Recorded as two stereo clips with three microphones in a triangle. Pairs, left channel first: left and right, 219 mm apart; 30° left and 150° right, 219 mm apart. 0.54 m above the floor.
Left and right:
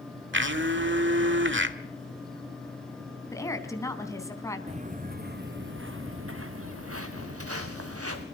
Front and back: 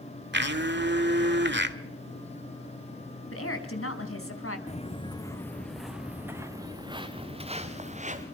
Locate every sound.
0.3 s a blender: 115° right, 1.5 m
3.3 s a woman speaking: 15° left, 4 m
4.7 s footsteps: 30° right, 1.9 m; by 8.2 s 90° right, 3.5 m